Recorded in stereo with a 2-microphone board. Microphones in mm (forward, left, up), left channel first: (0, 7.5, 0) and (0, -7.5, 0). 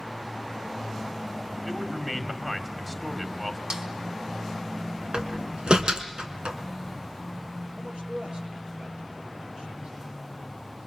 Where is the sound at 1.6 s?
Centre (ahead or behind), 2.5 m.